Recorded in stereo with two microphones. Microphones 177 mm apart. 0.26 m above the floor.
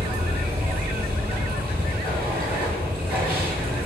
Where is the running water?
10° right (ahead or behind), 1.2 m.